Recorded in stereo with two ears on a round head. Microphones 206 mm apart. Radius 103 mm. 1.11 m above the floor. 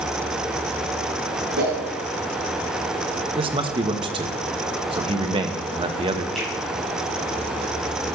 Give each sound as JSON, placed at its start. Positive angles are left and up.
{"t": 1.6, "sound": "a whoosh", "side_deg": -45, "distance_m": 3.5}
{"t": 3.4, "sound": "a man speaking", "side_deg": -20, "distance_m": 1.1}
{"t": 6.3, "sound": "a finger snap", "side_deg": 0, "distance_m": 6.0}